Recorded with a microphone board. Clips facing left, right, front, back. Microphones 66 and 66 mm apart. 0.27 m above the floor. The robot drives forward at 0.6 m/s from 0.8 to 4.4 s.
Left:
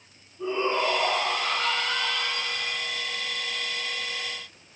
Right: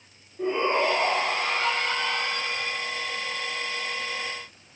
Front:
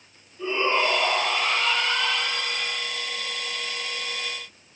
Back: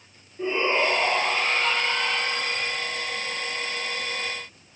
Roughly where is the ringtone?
I don't hear a ringtone.